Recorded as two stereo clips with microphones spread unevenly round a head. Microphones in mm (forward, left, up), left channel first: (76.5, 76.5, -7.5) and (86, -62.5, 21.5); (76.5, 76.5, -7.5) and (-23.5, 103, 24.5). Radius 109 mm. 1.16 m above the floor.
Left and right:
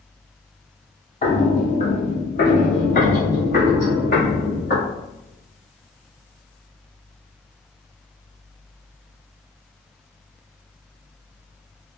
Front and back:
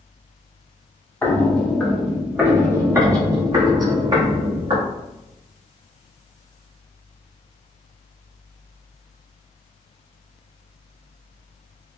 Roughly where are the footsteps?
Left.